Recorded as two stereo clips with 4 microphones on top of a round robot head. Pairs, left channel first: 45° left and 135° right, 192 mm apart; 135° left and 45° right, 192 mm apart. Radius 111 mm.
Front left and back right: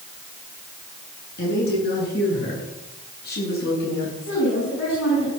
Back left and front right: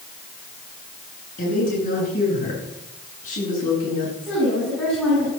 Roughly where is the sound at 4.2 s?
Ahead left.